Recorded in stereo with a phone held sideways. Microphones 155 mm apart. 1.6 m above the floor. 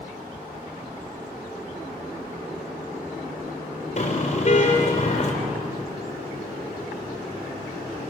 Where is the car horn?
50° left (ahead or behind), 3.5 m.